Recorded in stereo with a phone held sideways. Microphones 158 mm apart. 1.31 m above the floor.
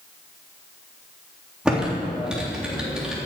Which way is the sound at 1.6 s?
5° right (ahead or behind).